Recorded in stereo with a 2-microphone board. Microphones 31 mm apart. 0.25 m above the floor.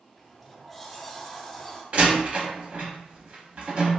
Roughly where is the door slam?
Right.